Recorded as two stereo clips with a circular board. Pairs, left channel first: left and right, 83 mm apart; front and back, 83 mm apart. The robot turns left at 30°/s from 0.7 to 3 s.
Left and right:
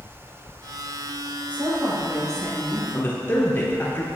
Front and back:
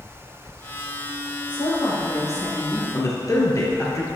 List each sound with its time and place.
1.5 s a woman speaking: 20° right, 2.5 m; by 2.8 s 60° right, 2.5 m
2.9 s a man speaking: 35° left, 1.9 m